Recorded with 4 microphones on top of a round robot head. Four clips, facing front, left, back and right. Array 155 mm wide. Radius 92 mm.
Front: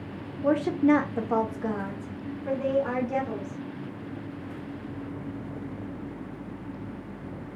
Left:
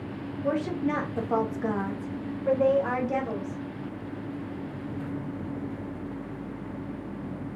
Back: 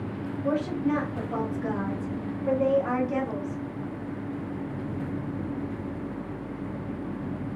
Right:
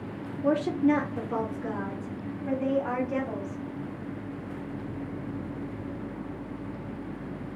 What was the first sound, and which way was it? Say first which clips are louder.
A woman speaking: right 4 dB, front 5 dB; 30° right.